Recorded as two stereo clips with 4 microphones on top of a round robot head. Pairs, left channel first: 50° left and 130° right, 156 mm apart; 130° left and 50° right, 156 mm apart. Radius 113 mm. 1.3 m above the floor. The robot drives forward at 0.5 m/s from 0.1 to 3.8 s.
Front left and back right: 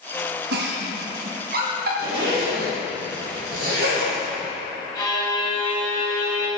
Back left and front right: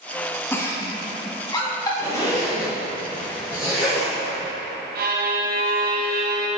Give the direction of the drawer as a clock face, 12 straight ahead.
I don't hear a drawer.